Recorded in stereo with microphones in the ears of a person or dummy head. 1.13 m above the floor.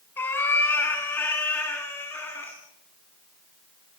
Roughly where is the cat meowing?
Centre.